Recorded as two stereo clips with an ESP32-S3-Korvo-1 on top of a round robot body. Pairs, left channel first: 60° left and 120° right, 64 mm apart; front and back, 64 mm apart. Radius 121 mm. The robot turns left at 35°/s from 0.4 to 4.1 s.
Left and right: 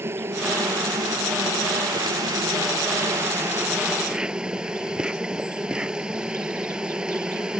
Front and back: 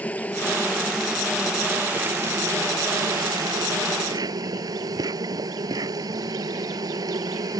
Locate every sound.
0.0 s an insect: 65° right; by 7.6 s 165° left